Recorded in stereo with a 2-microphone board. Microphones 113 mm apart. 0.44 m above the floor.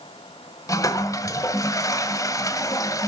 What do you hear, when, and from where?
0.7 s a toilet flushing: 30° left (ahead or behind), 1.2 m